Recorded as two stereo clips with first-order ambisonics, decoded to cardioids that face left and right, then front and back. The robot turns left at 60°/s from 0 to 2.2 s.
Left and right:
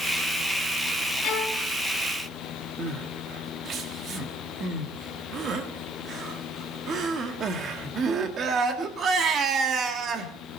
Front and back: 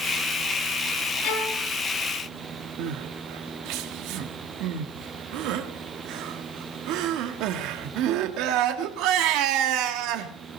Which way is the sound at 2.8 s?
150° right.